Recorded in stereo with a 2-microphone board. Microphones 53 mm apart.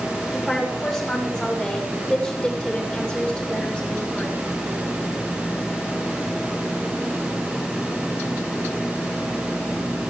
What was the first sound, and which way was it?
A woman speaking, centre (ahead or behind).